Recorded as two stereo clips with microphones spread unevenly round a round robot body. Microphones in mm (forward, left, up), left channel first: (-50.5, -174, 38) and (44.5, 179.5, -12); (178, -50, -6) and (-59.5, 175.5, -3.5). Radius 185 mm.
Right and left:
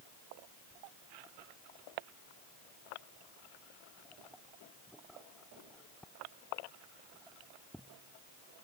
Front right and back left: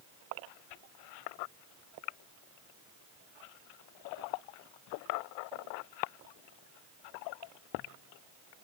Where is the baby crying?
No baby crying in this recording.